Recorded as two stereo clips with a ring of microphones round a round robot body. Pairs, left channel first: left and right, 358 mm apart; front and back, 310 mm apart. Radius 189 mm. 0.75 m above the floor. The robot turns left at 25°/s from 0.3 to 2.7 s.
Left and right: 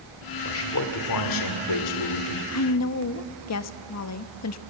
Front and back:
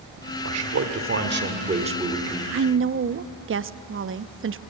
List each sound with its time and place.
0.5 s a man speaking: 145° left, 2 m; by 2.4 s 95° left, 2 m
2.5 s a woman speaking: 135° left, 0.8 m; by 4.6 s 130° left, 0.8 m